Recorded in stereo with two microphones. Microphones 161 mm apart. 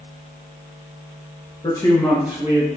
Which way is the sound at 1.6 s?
30° left (ahead or behind).